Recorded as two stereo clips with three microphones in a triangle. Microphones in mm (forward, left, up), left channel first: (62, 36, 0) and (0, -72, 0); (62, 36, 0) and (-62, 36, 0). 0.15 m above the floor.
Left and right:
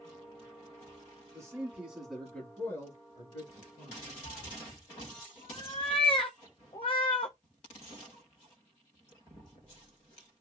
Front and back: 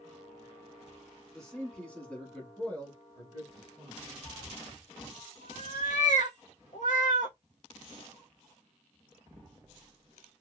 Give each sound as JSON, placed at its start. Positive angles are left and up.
{"t": 1.3, "sound": "a man speaking", "azimuth_deg": -80, "distance_m": 1.2}
{"t": 4.2, "sound": "a cat meowing", "azimuth_deg": 15, "distance_m": 0.6}